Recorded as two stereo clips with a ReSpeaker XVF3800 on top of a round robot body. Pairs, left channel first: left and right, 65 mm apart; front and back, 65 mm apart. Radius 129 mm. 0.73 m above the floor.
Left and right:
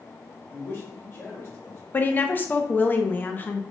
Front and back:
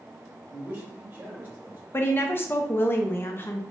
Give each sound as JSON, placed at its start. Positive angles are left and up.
{"t": 0.5, "sound": "a man speaking", "azimuth_deg": 120, "distance_m": 1.2}
{"t": 1.9, "sound": "a woman speaking", "azimuth_deg": 40, "distance_m": 0.6}